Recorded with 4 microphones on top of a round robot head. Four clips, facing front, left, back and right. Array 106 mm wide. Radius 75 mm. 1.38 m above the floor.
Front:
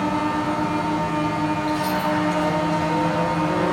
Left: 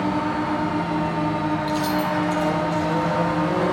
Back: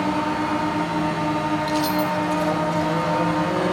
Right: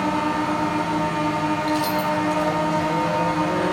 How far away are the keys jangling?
About 0.5 m.